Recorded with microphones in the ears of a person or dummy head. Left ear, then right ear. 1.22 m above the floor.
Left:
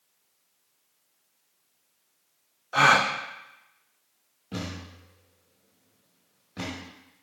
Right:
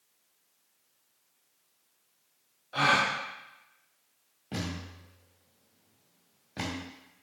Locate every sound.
2.7 s a gasp: 35° left (ahead or behind), 0.5 m
4.5 s a thud: 25° right (ahead or behind), 2.0 m